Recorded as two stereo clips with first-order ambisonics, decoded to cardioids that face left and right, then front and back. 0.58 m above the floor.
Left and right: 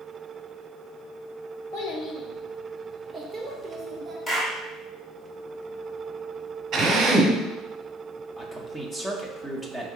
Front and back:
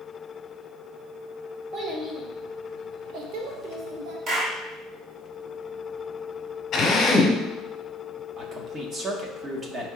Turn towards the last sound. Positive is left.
turn(degrees=155)